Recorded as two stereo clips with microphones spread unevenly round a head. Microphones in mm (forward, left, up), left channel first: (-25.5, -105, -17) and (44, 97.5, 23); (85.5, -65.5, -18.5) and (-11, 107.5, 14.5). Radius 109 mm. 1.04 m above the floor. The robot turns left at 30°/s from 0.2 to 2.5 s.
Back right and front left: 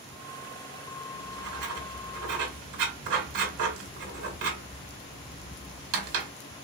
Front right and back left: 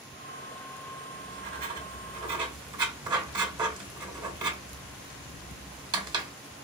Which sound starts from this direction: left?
Writing, at 1.1 s.